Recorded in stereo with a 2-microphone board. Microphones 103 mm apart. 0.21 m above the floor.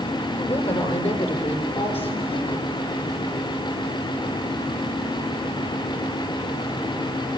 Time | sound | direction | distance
0.4 | a woman speaking | 75° left (ahead or behind) | 9 m